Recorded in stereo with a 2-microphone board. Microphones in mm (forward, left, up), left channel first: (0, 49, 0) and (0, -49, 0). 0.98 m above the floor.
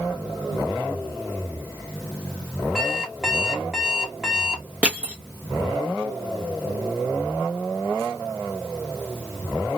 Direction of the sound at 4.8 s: 15° right (ahead or behind).